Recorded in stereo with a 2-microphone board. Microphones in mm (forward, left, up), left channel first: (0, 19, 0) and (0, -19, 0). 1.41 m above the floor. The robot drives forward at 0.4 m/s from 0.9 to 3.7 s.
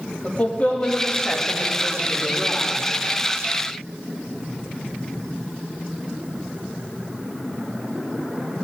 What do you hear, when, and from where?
0.2 s a woman speaking: 30° left (ahead or behind), 2.5 m; by 2.8 s 25° left (ahead or behind), 3 m